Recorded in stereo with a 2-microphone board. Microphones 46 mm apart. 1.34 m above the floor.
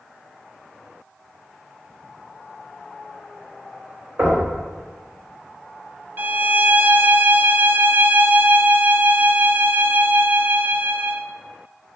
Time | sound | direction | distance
4.2 | knocking | 75° right (ahead or behind) | 4 m
6.2 | a violin | 45° right (ahead or behind) | 0.6 m